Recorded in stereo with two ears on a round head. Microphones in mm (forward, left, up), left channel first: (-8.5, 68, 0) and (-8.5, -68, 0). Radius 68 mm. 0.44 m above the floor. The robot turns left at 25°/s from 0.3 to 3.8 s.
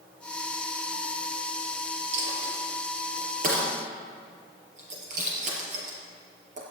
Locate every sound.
2.1 s a dropped coin: 85° right, 4.5 m; by 6.6 s 55° right (ahead or behind), 4.5 m